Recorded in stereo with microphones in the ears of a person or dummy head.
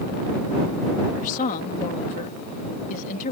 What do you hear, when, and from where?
1.1 s a woman speaking: 40° left (ahead or behind)